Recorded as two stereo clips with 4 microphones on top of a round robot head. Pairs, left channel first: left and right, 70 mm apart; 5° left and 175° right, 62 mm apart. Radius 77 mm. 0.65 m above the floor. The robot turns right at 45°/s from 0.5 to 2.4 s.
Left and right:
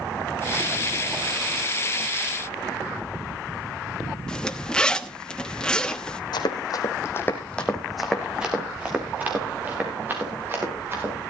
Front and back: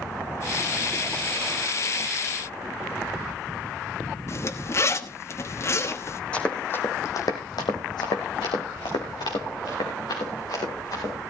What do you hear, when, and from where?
4.3 s a zipper: 15° left, 1.1 m
6.3 s running footsteps: 75° left, 1.9 m; by 11.1 s 35° right, 6 m